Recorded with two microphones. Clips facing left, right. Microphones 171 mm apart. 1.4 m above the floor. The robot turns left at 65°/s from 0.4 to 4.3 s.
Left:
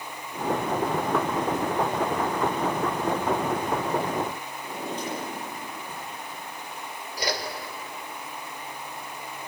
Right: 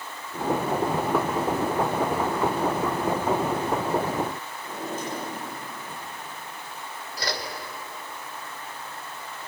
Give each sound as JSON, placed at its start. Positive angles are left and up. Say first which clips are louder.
{"t": 4.6, "sound": "a drawer", "louder": "even", "side_deg": -5, "distance_m": 9.5}
{"t": 7.2, "sound": "a whoosh", "louder": "left 2 dB", "side_deg": 10, "distance_m": 2.0}